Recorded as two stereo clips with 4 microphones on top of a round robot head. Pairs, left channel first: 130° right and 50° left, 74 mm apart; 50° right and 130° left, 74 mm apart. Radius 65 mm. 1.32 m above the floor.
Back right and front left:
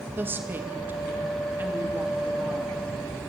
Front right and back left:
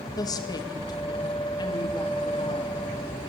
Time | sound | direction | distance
0.2 | a woman speaking | 15° right | 2.5 m